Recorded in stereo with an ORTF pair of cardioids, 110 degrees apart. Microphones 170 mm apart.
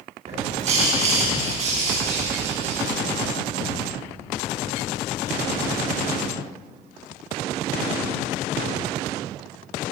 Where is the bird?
45° right, 6 m.